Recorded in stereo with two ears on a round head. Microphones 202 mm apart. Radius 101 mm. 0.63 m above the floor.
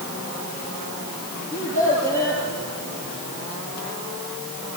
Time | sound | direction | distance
1.5 | a child speaking | 20° right (ahead or behind) | 9.5 m